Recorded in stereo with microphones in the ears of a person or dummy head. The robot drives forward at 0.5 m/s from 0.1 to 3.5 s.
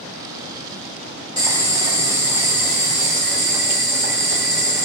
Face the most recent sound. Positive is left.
turn(degrees=-10)  # may be behind; listen again after turning